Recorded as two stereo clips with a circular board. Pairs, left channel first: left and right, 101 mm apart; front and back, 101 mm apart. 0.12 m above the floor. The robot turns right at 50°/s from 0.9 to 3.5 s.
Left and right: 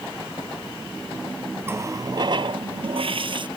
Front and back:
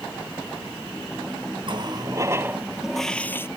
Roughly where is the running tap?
Behind right.